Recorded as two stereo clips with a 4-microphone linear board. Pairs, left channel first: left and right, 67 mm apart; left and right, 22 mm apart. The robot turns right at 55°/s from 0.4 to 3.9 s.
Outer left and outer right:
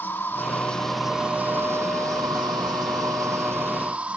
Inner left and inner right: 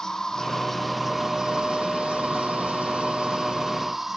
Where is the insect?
150° left; by 4.2 s 20° right.